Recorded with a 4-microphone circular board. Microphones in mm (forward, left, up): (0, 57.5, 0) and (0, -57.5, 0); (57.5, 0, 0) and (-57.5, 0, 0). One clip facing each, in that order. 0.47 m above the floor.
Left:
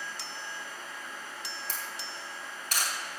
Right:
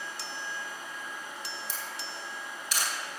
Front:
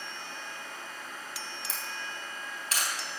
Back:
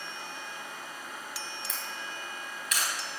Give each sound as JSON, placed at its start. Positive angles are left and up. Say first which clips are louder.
{"t": 1.7, "sound": "a camera shutter", "louder": "right 1 dB, even", "azimuth_deg": 55, "distance_m": 3.5}